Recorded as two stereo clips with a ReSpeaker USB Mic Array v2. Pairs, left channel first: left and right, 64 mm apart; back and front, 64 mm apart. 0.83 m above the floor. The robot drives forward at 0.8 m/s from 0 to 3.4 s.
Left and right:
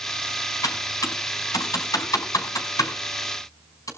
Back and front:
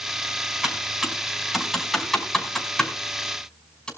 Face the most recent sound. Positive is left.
turn(degrees=105)